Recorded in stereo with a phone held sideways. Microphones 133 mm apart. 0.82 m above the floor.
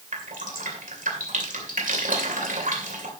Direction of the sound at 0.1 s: 80° right.